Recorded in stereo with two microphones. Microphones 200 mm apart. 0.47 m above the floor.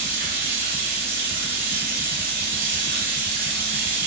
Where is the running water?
45° right (ahead or behind), 1.2 m.